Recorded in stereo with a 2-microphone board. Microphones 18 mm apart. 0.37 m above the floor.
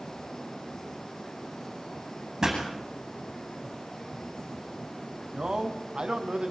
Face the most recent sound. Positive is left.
turn(degrees=-50)  # may be behind; listen again after turning